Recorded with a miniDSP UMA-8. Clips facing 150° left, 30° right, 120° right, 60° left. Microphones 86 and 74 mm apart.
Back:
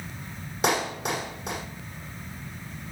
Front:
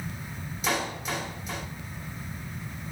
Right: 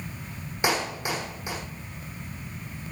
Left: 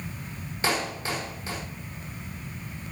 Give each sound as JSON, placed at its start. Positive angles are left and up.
{"t": 0.6, "sound": "a clap", "azimuth_deg": 170, "distance_m": 5.0}